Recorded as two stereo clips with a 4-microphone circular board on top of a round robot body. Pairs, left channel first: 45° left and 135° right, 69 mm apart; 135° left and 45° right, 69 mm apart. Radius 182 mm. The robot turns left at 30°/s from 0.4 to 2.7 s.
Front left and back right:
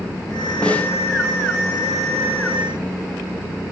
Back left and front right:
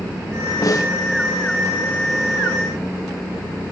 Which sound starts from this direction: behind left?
A snare drum, at 0.6 s.